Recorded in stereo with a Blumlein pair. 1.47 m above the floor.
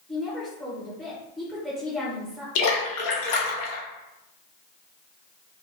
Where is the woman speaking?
10° right, 1.3 m.